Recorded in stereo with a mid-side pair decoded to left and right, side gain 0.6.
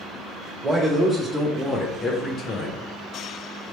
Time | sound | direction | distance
0.6 | a man speaking | 15° right | 1.2 m